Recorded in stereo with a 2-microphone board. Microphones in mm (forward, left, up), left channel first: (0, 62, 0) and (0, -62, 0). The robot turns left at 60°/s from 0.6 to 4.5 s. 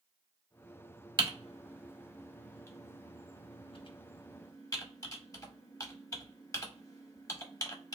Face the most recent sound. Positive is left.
turn(degrees=30)  # may be behind; listen again after turning